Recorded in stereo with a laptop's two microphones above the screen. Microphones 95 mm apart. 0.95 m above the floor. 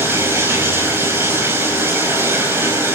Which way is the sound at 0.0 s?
25° right (ahead or behind).